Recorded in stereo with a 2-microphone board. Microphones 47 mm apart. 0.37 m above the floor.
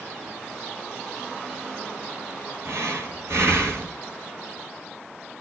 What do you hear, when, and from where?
2.6 s breathing: 65° right (ahead or behind), 1.6 m